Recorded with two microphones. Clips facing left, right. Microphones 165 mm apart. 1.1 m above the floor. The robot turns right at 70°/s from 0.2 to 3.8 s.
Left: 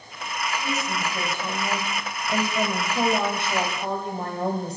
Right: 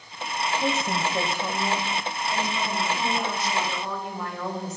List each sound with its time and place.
0.6 s a woman speaking: 75° right, 6 m; by 4.8 s 145° left, 6 m